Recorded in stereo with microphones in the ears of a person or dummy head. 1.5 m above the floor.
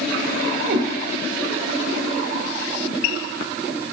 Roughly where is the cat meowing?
Right.